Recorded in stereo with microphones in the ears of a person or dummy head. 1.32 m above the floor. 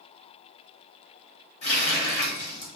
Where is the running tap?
35° left (ahead or behind), 1.1 m.